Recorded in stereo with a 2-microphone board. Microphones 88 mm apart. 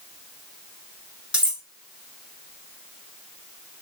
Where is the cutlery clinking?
15° right (ahead or behind), 1.4 m.